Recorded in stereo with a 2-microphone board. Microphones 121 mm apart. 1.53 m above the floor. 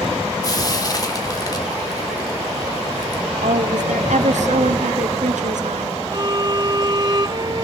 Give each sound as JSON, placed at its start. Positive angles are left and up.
{"t": 0.4, "sound": "frying", "side_deg": 30, "distance_m": 2.0}
{"t": 3.4, "sound": "a woman speaking", "side_deg": -75, "distance_m": 0.9}
{"t": 6.1, "sound": "a violin", "side_deg": -35, "distance_m": 0.7}